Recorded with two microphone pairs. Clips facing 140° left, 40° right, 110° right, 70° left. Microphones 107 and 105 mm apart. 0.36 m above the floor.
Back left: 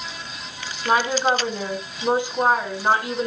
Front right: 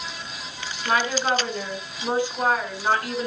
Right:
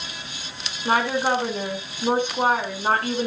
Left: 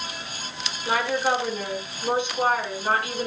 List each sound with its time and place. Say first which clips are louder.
0.8 s a woman speaking: back left 3 dB, right 2 dB; 150° right, 4 m